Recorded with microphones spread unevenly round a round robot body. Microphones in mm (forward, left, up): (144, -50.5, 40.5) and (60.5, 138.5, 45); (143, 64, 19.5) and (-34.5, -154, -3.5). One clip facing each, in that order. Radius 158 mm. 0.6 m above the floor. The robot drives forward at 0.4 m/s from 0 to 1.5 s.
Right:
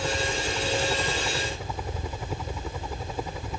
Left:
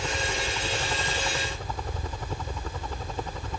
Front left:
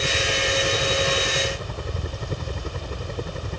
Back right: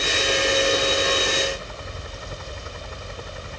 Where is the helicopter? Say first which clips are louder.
Right 3 dB, back right 2 dB; 15° left.